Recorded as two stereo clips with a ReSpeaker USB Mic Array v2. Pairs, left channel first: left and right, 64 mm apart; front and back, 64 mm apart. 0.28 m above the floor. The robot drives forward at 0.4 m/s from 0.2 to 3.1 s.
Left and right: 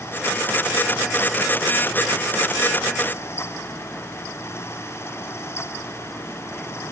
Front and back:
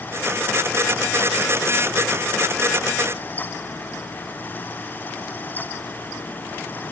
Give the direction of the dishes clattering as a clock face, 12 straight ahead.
No dishes clattering in this recording.